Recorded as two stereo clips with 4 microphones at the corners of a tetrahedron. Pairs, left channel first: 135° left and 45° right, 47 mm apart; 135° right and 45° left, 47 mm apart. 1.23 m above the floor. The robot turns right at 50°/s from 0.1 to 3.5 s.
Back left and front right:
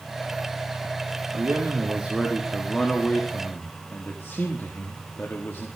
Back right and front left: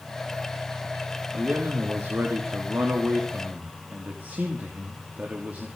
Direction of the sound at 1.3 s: 15° right.